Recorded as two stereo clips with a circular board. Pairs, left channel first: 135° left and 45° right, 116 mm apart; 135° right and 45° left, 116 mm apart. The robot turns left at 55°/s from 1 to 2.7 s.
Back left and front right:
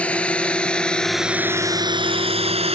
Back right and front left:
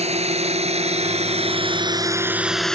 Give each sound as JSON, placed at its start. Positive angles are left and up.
{"t": 0.0, "sound": "a drone", "azimuth_deg": 55}